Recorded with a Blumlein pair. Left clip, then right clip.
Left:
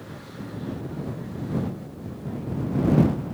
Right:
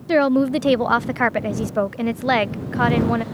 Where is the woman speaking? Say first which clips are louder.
Right 26 dB; 45° right.